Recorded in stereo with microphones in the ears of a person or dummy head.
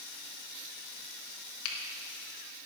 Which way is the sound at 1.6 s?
85° left.